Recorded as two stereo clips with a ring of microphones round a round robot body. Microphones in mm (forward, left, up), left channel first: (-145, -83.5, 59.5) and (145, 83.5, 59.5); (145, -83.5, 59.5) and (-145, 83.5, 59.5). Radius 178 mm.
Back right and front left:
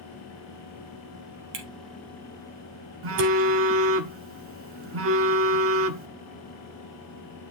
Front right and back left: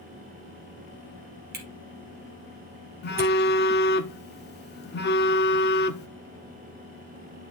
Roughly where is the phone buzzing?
Ahead.